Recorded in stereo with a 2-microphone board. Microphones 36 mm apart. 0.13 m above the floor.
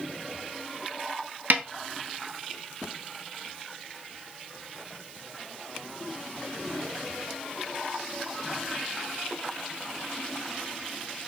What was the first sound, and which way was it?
A snare drum, 55° right (ahead or behind).